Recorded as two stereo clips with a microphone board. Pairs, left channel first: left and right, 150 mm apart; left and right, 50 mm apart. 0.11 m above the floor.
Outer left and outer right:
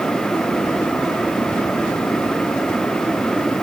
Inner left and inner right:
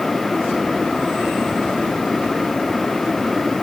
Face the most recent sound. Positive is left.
No sound to turn to.